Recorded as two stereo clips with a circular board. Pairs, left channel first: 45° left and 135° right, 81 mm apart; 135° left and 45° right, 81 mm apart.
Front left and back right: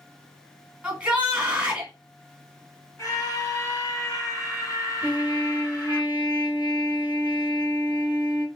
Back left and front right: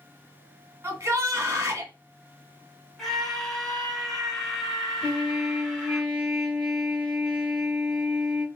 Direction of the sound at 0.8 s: 65° right.